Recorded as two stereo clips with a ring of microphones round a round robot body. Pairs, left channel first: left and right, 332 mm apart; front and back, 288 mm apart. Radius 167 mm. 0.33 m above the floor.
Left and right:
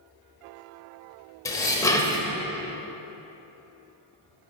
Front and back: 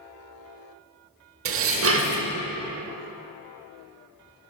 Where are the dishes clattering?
165° left, 0.7 m.